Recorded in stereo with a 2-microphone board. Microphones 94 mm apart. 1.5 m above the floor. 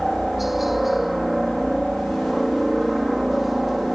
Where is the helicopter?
Centre (ahead or behind).